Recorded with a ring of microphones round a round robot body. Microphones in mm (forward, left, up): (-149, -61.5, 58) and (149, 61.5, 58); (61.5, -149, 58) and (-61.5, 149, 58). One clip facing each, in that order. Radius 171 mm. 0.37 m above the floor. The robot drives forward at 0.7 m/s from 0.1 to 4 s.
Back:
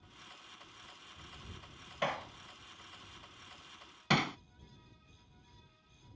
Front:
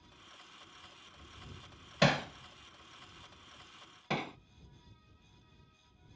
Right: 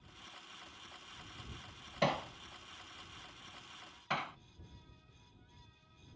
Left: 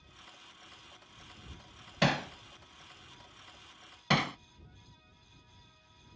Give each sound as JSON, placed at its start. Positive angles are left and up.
{"t": 2.0, "sound": "hammering", "azimuth_deg": 55}